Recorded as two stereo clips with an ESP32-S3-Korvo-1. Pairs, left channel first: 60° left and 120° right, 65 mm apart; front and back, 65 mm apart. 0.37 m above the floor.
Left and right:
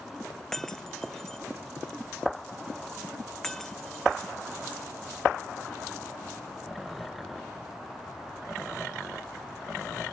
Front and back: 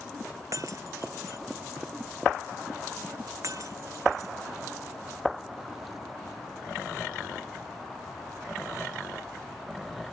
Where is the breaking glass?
145° left.